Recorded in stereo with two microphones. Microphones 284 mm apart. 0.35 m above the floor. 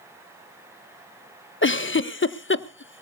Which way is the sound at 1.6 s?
45° left (ahead or behind).